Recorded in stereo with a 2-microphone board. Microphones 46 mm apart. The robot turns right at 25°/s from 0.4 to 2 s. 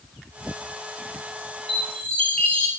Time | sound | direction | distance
1.7 | a chime | 10° left (ahead or behind) | 4.5 m